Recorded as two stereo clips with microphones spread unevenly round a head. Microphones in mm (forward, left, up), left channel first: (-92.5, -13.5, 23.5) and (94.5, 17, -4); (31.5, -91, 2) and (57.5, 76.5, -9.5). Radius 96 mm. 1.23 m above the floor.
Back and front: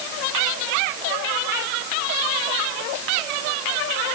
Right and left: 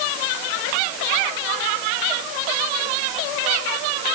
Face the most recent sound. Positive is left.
No sound to turn to.